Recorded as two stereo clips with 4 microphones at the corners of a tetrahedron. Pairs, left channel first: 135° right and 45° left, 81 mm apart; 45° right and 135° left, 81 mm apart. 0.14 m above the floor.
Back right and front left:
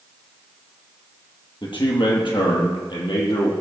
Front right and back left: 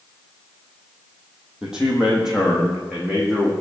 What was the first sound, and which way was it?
A man speaking, 145° right.